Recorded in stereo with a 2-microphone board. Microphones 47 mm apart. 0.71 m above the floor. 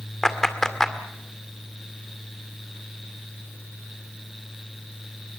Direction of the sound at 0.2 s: 10° left (ahead or behind).